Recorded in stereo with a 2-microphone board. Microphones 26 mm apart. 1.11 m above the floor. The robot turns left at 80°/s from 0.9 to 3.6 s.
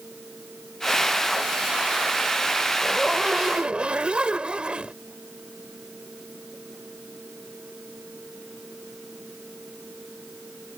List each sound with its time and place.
2.8 s a zipper: 10° left; by 5.0 s 50° right